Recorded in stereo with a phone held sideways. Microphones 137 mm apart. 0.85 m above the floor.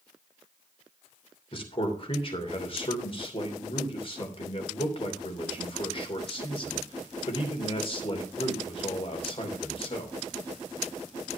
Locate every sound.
1.5 s a man speaking: 40° left (ahead or behind), 2.5 m